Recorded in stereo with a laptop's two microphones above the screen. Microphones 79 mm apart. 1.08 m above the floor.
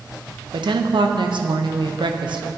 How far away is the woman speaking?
About 0.5 m.